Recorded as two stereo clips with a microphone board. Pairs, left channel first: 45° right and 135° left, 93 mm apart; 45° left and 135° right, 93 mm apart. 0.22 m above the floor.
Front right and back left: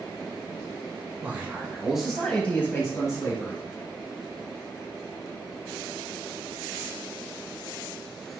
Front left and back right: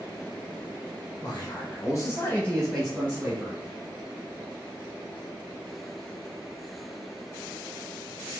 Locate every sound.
1.2 s a man speaking: 70° left, 1.9 m; by 3.6 s 85° right, 1.8 m